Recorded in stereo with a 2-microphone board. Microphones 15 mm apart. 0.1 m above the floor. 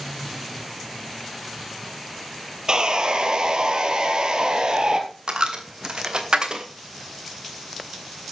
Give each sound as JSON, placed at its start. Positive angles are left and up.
{"t": 2.7, "sound": "sawing", "side_deg": -55, "distance_m": 2.0}
{"t": 5.3, "sound": "a dropped coin", "side_deg": -60, "distance_m": 2.5}